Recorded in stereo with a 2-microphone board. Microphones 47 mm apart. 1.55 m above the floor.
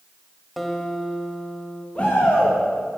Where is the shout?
30° left (ahead or behind), 3 m.